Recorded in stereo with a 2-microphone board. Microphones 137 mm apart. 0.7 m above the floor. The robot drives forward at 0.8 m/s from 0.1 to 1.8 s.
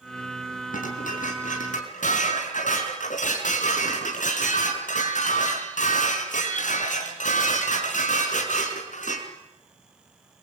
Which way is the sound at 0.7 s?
75° left (ahead or behind).